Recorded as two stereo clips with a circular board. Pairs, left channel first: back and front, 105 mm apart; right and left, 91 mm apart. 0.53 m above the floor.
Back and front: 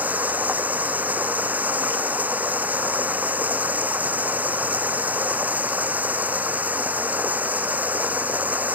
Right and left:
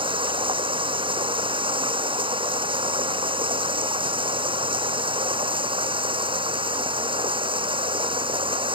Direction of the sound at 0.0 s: 75° left.